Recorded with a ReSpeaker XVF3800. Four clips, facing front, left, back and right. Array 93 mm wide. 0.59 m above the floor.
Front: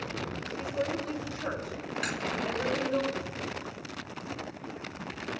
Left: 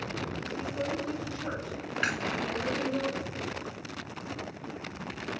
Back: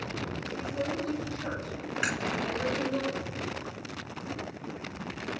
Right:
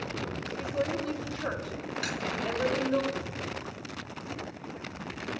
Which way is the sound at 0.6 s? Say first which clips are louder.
Right 3 dB, front 1 dB; 80° right.